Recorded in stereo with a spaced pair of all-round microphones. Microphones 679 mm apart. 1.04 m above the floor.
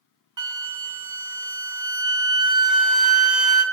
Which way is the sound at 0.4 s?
30° right (ahead or behind).